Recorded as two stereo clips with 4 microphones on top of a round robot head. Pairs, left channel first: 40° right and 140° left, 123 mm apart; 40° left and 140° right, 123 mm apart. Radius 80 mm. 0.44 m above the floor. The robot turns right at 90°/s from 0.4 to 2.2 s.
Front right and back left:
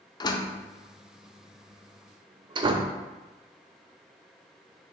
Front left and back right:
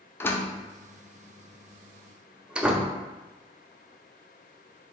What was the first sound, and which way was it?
A door slam, 20° right.